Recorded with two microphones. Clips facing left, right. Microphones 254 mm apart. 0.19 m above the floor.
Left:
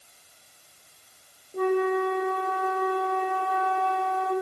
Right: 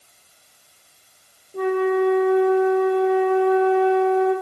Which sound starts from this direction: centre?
A flute, at 1.5 s.